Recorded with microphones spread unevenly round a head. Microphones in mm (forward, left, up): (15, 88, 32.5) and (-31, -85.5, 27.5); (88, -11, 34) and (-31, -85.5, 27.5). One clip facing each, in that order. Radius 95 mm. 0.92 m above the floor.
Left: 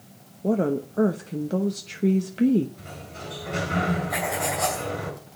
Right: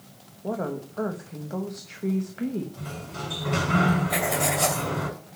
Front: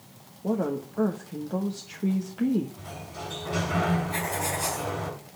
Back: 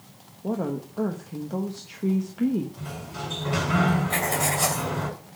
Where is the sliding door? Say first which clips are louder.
Right 3 dB, back 3 dB; 125° right, 6.5 m.